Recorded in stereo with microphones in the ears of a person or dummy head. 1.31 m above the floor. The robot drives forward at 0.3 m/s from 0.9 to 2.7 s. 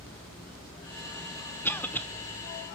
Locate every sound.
1.6 s a cough: 10° left (ahead or behind), 0.7 m